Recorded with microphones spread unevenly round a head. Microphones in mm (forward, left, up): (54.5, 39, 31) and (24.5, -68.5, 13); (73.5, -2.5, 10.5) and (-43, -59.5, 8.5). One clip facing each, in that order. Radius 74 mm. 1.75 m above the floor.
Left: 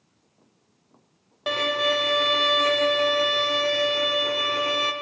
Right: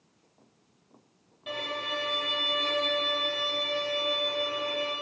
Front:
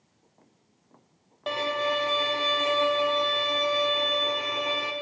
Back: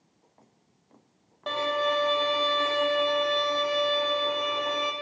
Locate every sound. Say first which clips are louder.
1.5 s a violin: left 11 dB, back 1 dB; 110° left, 0.7 m